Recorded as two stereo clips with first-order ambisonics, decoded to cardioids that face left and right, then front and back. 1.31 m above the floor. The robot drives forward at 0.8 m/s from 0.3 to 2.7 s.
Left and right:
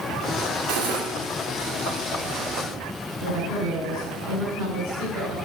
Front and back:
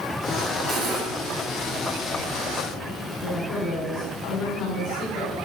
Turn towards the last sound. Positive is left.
turn(degrees=-75)